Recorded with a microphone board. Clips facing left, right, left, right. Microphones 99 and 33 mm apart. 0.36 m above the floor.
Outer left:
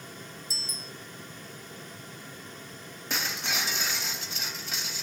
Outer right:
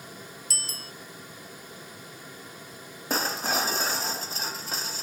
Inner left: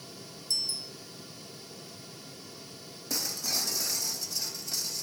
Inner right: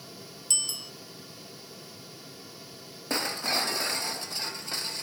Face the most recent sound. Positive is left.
turn(degrees=-40)  # may be behind; listen again after turning